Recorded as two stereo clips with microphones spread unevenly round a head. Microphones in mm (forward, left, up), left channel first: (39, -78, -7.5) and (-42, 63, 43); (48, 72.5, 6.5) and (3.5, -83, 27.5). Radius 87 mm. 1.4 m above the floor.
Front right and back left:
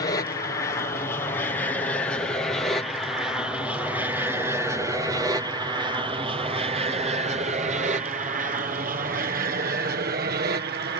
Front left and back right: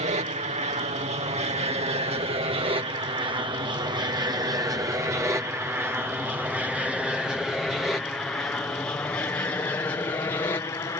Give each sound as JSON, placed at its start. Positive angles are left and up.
{"t": 0.0, "sound": "an aircraft", "azimuth_deg": -80}